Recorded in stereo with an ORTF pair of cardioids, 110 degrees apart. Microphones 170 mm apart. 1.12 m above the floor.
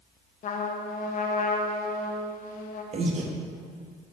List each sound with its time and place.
0.4 s a trumpet: 50° left, 0.9 m
2.9 s breathing: 40° right, 0.9 m